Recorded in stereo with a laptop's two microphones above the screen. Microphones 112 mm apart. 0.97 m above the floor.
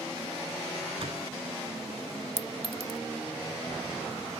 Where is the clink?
65° right (ahead or behind).